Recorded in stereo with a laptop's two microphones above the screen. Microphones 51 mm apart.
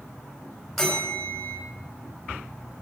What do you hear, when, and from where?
0.8 s a bell: centre (ahead or behind), 4 m